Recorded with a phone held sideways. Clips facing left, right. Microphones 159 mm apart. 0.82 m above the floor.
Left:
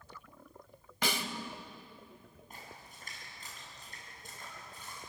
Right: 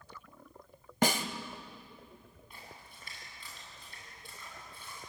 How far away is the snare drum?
About 1.5 m.